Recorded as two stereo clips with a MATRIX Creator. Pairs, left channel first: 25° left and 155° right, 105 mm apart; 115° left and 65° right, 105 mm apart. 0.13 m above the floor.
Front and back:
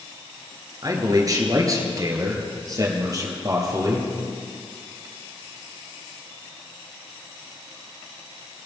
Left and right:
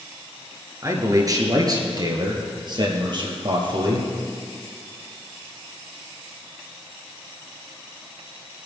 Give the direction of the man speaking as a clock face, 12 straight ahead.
4 o'clock.